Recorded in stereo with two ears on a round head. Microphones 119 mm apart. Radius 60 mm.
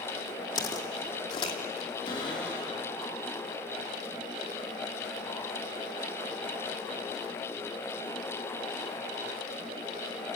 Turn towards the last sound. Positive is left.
turn(degrees=35)  # may be behind; listen again after turning